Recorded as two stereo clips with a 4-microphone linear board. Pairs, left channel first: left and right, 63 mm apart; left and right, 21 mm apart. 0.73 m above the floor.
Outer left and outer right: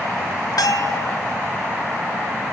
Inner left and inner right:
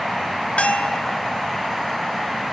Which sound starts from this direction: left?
A bell, at 0.6 s.